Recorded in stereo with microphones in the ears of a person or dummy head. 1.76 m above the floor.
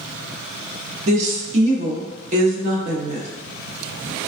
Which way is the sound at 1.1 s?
40° right (ahead or behind).